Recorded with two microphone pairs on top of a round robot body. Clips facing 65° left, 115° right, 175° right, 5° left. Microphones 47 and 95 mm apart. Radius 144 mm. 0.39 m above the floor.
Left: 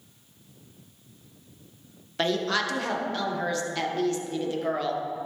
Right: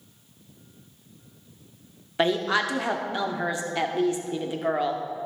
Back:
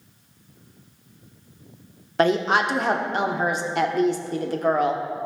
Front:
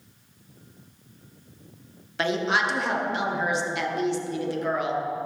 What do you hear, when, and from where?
2.2 s a woman speaking: 175° left, 1.2 m